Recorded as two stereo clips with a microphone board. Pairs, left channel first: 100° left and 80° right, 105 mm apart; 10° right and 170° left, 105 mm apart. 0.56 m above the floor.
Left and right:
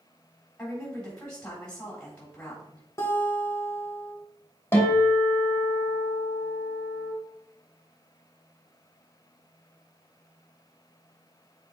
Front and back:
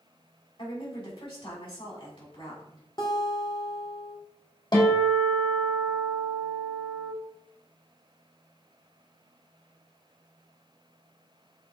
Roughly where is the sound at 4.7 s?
Ahead left.